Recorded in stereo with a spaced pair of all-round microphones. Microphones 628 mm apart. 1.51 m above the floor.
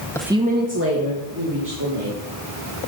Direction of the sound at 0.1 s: 5° left (ahead or behind).